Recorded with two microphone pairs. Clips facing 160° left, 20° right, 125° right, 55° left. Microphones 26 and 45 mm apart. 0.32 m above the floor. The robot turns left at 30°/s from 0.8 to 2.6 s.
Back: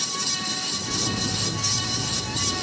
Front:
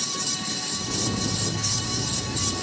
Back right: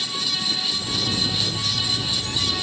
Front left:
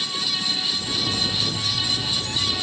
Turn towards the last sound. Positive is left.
No sound to turn to.